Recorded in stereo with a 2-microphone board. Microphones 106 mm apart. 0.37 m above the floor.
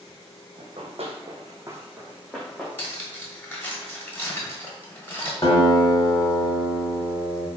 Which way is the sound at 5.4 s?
35° left (ahead or behind).